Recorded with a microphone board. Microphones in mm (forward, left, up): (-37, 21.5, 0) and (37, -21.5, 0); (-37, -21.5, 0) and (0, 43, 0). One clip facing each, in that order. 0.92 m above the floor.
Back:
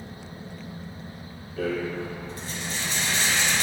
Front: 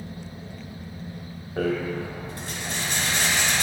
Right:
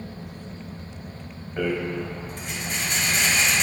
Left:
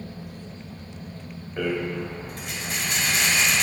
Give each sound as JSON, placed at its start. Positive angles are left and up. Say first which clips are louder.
{"t": 1.6, "sound": "a rattle", "louder": "front 2 dB, right 1 dB", "azimuth_deg": -30, "distance_m": 1.3}